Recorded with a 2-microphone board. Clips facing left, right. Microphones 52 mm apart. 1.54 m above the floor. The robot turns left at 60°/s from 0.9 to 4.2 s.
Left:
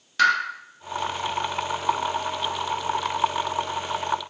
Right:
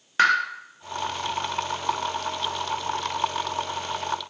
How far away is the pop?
About 0.6 m.